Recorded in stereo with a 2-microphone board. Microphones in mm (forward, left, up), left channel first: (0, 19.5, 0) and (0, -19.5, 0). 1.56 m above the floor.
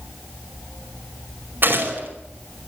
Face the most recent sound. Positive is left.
turn(degrees=-60)  # may be behind; listen again after turning